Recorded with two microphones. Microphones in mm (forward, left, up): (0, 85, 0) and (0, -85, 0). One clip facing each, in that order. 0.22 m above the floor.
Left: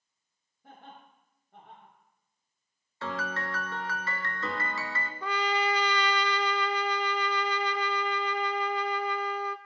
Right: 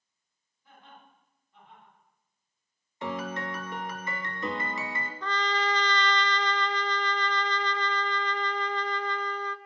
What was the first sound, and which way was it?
Laughter, 75° left (ahead or behind).